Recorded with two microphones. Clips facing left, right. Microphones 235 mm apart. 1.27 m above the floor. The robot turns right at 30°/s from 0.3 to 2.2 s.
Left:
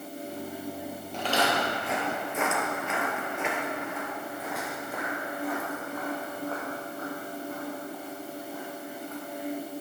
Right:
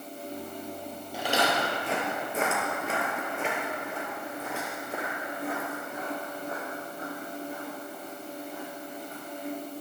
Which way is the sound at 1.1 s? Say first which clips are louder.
Even; 10° right (ahead or behind).